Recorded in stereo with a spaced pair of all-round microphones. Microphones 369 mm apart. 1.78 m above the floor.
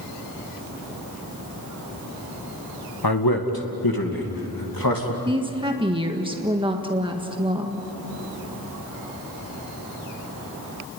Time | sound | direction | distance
3.0 | a man speaking | 80° left | 1.9 m
5.2 | a woman speaking | 15° right (ahead or behind) | 1.6 m